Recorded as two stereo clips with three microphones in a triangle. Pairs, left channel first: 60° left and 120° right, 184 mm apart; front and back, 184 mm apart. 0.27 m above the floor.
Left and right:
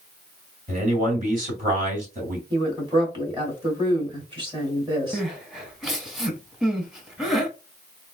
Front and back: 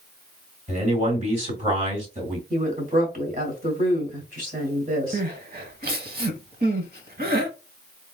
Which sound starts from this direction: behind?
A woman speaking, at 2.5 s.